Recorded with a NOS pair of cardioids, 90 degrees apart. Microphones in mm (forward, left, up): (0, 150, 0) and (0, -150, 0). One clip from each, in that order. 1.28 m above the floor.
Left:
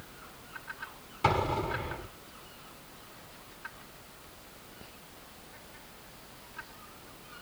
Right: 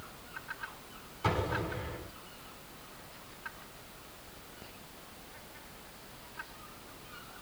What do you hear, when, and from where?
1.2 s an explosion: 55° left, 9 m